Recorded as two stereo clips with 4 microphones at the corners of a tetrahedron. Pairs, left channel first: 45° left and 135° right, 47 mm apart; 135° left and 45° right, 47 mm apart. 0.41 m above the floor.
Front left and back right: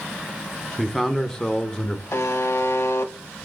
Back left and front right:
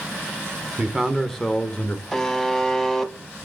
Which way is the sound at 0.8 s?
40° right.